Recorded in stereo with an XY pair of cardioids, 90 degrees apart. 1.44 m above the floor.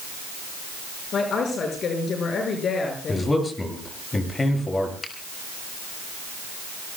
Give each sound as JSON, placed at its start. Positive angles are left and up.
{"t": 1.1, "sound": "a woman speaking", "azimuth_deg": 60, "distance_m": 6.0}
{"t": 3.1, "sound": "a man speaking", "azimuth_deg": 30, "distance_m": 8.5}
{"t": 5.0, "sound": "a finger snap", "azimuth_deg": 35, "distance_m": 6.0}